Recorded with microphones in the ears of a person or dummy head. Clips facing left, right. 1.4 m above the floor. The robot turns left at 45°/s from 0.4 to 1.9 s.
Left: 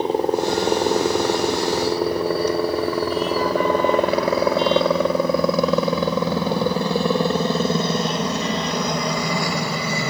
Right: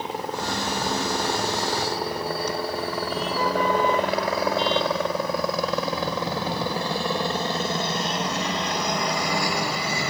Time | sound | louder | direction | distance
0.0 | a helicopter | left 10 dB | 25° left (ahead or behind) | ?